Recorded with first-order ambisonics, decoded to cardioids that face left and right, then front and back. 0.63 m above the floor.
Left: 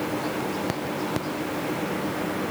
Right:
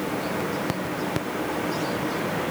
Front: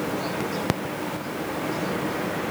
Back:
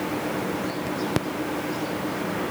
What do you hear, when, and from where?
Only background noise.